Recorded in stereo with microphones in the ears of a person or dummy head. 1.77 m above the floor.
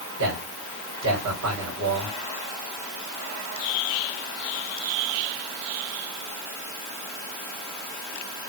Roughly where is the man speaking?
Right.